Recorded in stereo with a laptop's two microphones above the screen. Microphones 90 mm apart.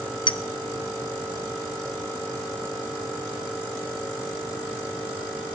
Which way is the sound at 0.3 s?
60° left (ahead or behind).